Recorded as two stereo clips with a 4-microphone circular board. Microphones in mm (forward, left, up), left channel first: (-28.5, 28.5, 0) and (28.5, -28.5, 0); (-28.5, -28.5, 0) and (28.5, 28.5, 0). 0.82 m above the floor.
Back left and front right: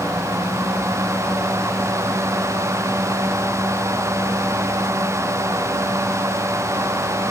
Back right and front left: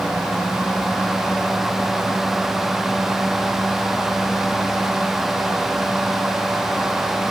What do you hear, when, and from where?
Only background noise.